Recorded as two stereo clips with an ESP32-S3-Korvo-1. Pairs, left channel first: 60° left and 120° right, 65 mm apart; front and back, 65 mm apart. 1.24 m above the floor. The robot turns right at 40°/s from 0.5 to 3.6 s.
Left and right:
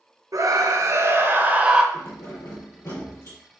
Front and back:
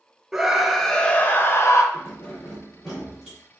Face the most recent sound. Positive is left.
turn(degrees=115)